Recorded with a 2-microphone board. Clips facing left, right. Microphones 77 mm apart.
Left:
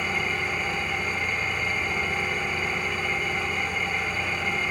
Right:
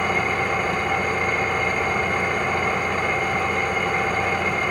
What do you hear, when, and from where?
0.0 s an engine running: 60° right (ahead or behind), 0.7 m